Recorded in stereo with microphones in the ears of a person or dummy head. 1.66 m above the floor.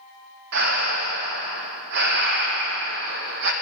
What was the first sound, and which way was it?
Breathing, 55° right (ahead or behind).